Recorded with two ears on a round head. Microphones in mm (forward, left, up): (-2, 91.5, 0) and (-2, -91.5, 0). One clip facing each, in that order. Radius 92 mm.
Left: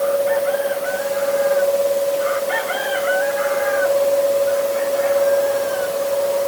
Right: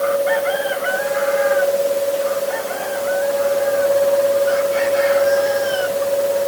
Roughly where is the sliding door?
No sliding door in this recording.